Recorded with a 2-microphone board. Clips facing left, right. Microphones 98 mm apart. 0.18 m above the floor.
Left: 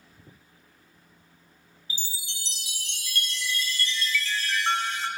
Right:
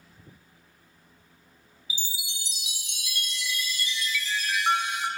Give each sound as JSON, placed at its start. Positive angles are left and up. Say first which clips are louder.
{"t": 1.9, "sound": "a chime", "louder": "right 1 dB", "side_deg": -15, "distance_m": 0.7}